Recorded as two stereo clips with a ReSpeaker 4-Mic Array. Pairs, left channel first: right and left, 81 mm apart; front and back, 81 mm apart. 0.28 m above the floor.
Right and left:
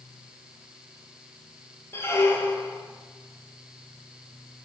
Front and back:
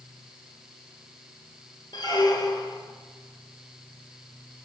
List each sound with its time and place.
1.9 s a squeak: 30° right, 0.8 m